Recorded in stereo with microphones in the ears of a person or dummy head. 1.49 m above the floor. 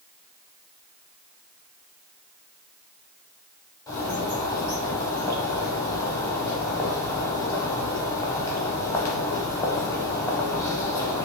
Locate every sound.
3.9 s a bird: 20° left (ahead or behind), 0.6 m